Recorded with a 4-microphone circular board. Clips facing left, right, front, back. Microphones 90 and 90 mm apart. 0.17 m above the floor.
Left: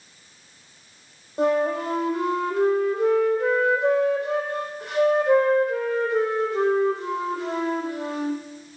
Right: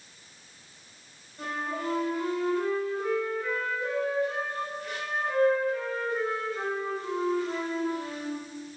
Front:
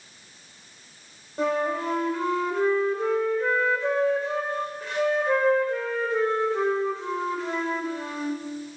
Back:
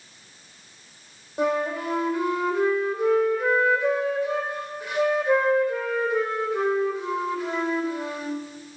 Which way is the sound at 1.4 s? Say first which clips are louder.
Left 12 dB, back 1 dB; 100° left.